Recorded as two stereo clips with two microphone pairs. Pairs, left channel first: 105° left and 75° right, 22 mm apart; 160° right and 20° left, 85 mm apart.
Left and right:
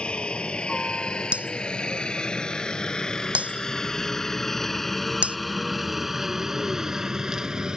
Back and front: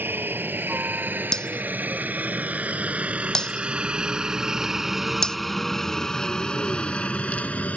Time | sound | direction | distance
0.0 | a helicopter | 80° left | ?
1.3 | breaking glass | 80° right | ?